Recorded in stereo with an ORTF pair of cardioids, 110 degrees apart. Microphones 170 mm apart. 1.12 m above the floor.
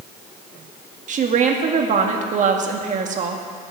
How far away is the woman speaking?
About 1.8 m.